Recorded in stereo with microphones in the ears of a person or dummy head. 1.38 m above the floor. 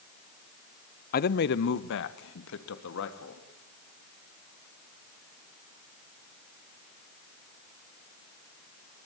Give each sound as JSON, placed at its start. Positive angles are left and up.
{"t": 1.1, "sound": "a man speaking", "side_deg": 45, "distance_m": 1.0}